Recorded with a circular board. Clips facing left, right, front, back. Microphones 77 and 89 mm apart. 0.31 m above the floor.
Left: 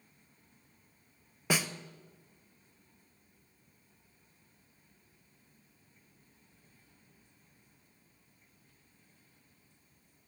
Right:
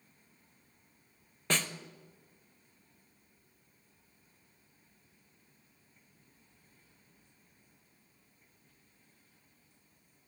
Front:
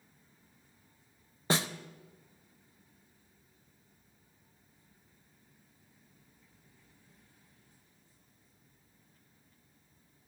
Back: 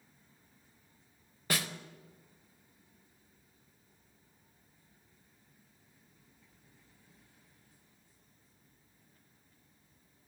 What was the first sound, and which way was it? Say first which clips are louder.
A snare drum: left 2 dB, front 5 dB; 20° left.